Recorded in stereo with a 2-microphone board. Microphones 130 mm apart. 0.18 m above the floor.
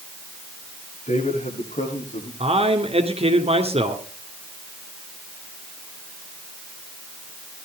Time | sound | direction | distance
1.1 | a man speaking | 70° left (ahead or behind) | 8.5 m
2.4 | a man speaking | 50° right (ahead or behind) | 2 m